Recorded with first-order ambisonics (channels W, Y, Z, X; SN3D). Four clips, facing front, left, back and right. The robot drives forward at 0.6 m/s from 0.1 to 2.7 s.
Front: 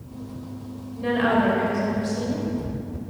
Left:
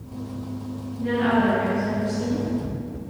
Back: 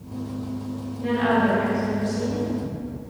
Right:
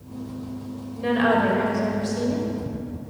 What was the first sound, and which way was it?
A woman speaking, 60° right.